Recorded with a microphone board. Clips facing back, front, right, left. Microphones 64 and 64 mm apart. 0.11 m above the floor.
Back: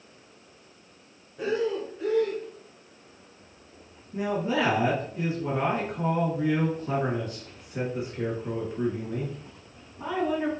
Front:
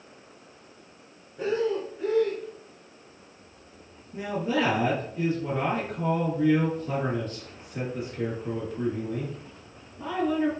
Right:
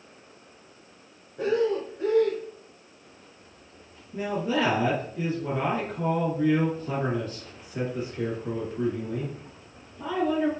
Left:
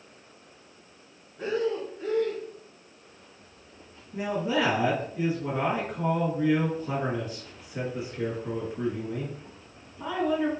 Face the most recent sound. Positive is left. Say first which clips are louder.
# back 1 dB, even
turn(degrees=155)